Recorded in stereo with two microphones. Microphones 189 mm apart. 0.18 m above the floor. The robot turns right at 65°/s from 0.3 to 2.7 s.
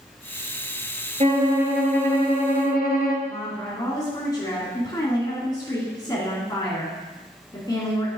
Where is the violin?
40° right, 1.3 m; by 3.1 s 60° left, 1.3 m.